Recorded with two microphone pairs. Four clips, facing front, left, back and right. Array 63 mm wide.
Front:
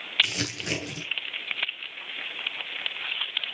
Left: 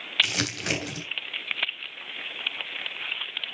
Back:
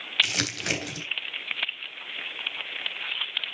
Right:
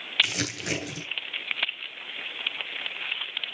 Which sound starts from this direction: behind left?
Crumpling, at 0.2 s.